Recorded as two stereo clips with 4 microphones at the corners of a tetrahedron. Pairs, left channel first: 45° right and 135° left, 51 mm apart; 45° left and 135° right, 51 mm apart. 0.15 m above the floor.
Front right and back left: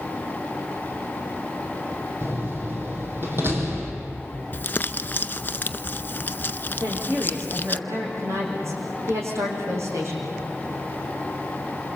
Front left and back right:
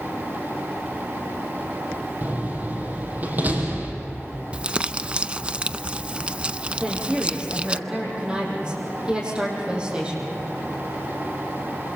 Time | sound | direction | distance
2.2 | a door slam | 175° left | 4 m
4.5 | crumpling | 75° right | 0.5 m
6.8 | a woman speaking | 155° left | 7 m